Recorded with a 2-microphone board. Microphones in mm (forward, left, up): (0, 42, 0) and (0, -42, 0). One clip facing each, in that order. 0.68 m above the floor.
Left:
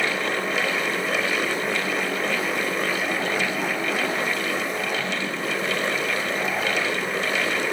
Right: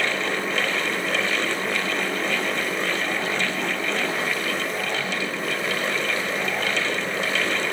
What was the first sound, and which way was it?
Only background noise.